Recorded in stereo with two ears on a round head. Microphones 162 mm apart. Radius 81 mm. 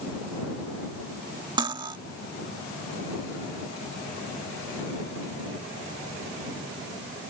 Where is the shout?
No shout in this recording.